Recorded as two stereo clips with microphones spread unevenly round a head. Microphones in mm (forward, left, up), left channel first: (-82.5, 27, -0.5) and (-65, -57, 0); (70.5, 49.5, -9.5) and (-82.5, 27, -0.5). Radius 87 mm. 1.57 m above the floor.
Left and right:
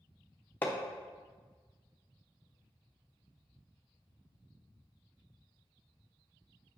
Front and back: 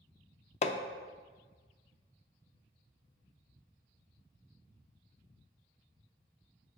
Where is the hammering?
35° left, 0.5 m.